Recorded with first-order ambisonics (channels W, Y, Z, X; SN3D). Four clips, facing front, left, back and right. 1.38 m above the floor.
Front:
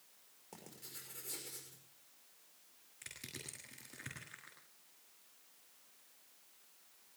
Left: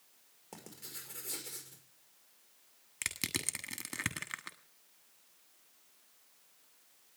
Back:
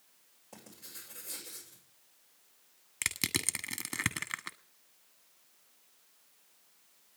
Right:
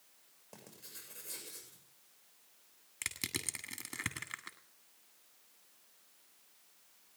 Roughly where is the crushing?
Behind.